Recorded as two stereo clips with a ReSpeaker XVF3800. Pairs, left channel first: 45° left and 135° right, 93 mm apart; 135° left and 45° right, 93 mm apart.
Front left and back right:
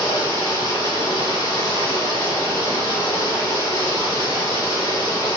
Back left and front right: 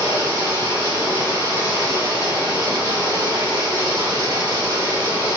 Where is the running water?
Straight ahead, 1.3 m.